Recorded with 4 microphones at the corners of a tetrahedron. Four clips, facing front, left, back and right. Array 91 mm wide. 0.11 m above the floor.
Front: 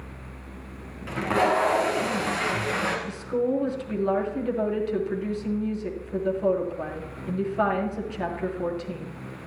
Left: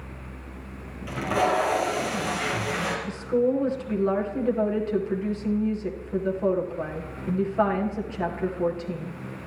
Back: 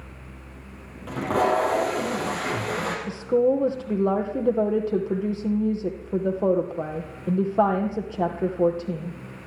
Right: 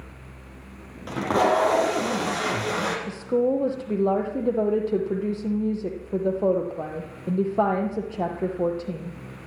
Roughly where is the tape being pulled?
Behind right.